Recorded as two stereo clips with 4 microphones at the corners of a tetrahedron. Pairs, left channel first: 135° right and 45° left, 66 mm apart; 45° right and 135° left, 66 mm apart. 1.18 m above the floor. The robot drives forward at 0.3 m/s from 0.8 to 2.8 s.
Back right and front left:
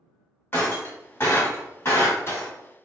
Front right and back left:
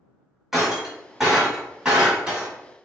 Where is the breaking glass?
145° right, 1.2 m; by 2.5 s 160° right, 1.5 m.